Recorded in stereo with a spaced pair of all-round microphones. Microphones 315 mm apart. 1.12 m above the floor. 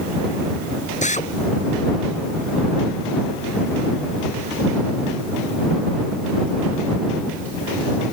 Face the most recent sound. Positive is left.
turn(degrees=20)  # may be behind; listen again after turning